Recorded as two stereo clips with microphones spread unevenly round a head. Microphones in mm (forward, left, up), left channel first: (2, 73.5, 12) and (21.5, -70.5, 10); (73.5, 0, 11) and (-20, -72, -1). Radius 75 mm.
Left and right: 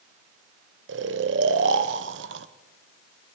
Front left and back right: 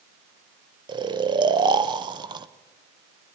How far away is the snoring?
About 1.2 m.